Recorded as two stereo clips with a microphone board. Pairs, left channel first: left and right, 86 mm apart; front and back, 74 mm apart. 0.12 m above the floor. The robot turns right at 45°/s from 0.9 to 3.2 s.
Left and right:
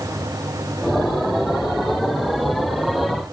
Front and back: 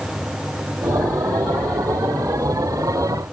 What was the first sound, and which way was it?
Only background noise.